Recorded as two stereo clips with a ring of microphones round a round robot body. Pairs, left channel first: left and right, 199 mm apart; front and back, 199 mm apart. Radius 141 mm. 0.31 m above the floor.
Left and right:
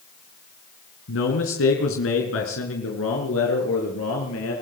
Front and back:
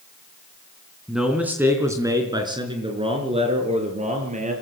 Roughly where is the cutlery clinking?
No cutlery clinking in this recording.